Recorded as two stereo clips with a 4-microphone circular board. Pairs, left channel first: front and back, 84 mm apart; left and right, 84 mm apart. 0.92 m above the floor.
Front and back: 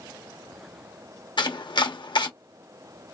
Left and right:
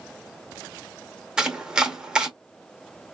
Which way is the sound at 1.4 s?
10° right.